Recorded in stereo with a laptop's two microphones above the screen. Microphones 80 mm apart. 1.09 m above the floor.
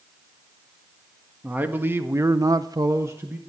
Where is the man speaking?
20° right (ahead or behind), 1.7 m; by 3.4 s 25° right (ahead or behind), 1.0 m.